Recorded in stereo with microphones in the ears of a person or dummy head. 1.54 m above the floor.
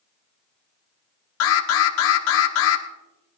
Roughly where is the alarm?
Left.